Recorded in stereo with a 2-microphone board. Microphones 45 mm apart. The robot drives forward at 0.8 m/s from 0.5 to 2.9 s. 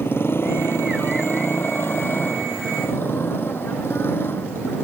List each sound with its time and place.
0.0 s a motorcycle: 60° left (ahead or behind)